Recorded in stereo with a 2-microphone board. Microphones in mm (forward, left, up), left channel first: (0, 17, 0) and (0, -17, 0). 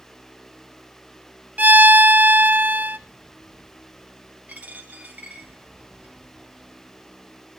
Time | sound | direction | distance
1.6 | a violin | 55° right (ahead or behind) | 0.7 m
4.5 | a dropped coin | 45° right (ahead or behind) | 5 m